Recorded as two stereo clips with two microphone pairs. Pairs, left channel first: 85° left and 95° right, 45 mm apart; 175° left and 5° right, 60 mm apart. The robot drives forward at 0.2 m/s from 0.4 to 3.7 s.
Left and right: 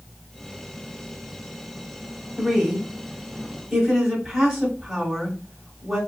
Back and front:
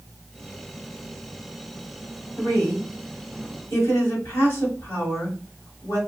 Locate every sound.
2.4 s a woman speaking: 175° right, 1.5 m